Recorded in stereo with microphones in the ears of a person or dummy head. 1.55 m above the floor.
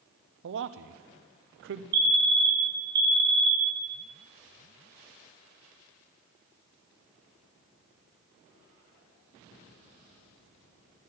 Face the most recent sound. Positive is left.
turn(degrees=-50)  # may be behind; listen again after turning